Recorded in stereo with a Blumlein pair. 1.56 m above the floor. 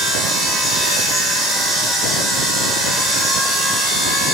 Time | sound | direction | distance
0.0 | a machine running | 5° right | 7.5 m